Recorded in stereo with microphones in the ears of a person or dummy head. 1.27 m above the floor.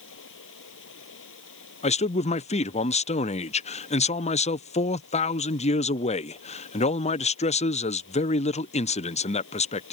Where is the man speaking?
25° left (ahead or behind).